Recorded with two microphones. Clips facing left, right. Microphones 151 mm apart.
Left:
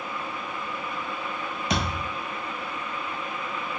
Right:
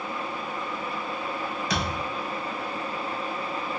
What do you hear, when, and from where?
1.7 s a thud: 35° left (ahead or behind), 1.1 m